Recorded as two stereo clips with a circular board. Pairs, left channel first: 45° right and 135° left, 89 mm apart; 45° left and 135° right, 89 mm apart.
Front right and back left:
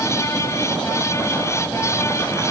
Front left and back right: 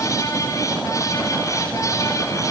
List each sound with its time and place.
Only background noise.